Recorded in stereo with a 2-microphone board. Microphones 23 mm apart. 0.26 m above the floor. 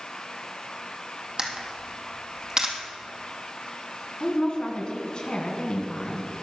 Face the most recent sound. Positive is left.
turn(degrees=45)  # may be behind; listen again after turning